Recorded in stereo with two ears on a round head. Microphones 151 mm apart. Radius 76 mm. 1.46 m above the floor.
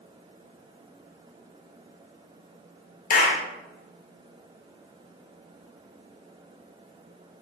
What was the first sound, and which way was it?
A clap, 50° left (ahead or behind).